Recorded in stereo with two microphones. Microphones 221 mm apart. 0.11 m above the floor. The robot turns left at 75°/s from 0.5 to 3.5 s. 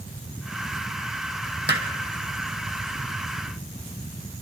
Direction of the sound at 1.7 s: 50° right (ahead or behind).